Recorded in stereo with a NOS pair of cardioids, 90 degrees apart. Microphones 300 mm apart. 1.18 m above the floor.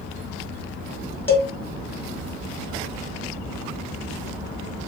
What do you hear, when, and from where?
1.3 s a cowbell: 10° left, 1.0 m